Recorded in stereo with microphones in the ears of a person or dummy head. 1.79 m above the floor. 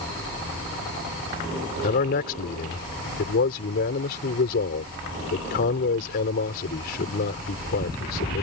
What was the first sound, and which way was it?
A man speaking, 45° left (ahead or behind).